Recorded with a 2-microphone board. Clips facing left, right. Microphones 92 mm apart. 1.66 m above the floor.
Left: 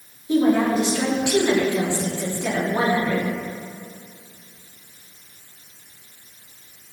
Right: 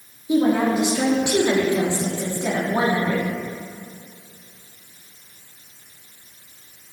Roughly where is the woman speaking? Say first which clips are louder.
Even; centre.